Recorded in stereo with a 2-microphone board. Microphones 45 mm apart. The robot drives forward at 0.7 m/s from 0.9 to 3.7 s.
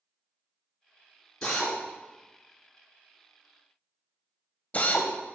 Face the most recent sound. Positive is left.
turn(degrees=35)  # may be behind; listen again after turning